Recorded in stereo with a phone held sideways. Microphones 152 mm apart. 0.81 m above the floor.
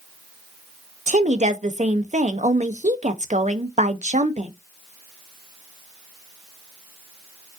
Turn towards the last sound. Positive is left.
turn(degrees=-55)  # may be behind; listen again after turning